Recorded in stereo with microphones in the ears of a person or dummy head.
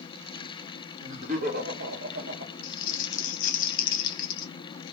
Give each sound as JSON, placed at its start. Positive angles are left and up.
{"t": 1.0, "sound": "laughter", "side_deg": -40, "distance_m": 1.5}
{"t": 2.6, "sound": "crumpling", "side_deg": 45, "distance_m": 0.9}